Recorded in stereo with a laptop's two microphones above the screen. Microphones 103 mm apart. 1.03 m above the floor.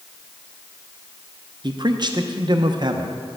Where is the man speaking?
45° right (ahead or behind), 0.6 m.